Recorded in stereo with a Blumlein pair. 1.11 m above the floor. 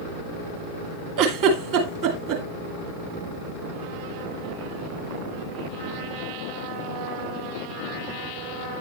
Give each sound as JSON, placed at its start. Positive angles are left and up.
{"t": 1.2, "sound": "a giggle", "azimuth_deg": -45, "distance_m": 2.0}